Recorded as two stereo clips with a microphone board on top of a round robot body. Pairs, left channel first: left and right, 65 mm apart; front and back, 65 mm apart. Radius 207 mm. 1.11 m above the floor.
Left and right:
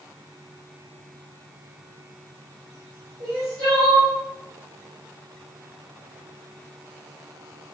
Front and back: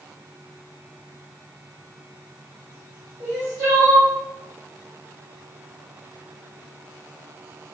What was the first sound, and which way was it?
Crying, 135° right.